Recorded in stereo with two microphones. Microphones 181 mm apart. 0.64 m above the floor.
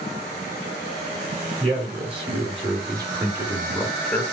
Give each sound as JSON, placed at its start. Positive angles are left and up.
{"t": 1.6, "sound": "a man speaking", "side_deg": -35, "distance_m": 3.0}